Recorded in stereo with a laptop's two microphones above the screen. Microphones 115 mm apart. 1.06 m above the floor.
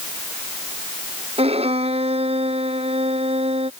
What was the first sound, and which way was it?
A violin, 55° right (ahead or behind).